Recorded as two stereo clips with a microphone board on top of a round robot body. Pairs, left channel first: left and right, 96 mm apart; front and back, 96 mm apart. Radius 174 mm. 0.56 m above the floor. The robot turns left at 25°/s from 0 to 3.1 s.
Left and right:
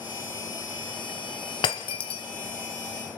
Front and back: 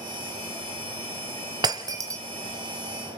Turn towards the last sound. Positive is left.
turn(degrees=95)